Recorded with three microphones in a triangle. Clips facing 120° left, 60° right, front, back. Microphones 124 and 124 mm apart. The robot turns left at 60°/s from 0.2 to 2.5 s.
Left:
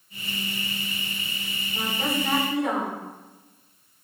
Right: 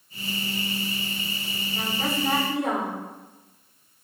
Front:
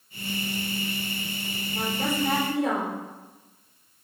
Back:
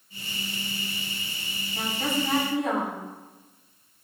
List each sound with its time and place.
1.7 s a woman speaking: 50° left, 3 m; by 3.0 s 5° left, 3 m